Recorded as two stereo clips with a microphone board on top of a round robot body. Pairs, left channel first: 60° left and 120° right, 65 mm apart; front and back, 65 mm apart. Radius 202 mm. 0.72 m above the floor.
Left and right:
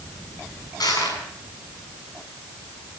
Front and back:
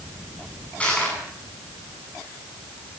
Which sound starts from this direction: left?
Crushing, at 0.8 s.